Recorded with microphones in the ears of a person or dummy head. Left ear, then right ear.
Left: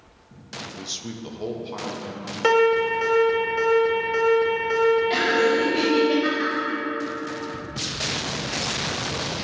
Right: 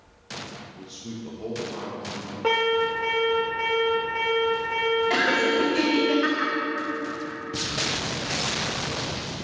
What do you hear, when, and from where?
0.8 s a man speaking: 65° left (ahead or behind), 0.6 m; by 2.3 s 30° left (ahead or behind), 2 m
2.4 s an alarm: 70° left (ahead or behind), 2.5 m
5.1 s laughter: 30° right (ahead or behind), 2.0 m